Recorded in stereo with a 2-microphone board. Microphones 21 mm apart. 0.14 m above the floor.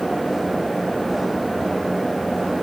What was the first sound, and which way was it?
Only background noise.